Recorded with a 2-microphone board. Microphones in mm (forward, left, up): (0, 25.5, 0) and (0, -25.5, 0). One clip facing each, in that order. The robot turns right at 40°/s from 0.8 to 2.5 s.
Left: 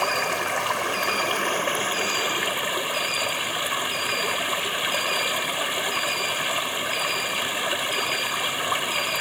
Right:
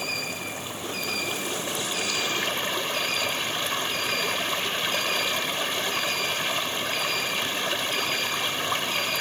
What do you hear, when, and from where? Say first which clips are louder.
0.0 s running water: left 8 dB; 100° left; by 9.2 s 170° left